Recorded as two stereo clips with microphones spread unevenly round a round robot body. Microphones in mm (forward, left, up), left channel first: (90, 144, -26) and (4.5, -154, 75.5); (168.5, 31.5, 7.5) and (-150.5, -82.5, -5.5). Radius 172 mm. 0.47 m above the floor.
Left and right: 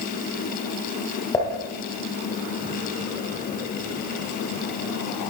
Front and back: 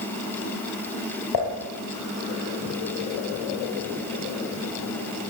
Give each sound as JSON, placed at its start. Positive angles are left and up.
{"t": 1.3, "sound": "dishes clattering", "azimuth_deg": -5, "distance_m": 8.0}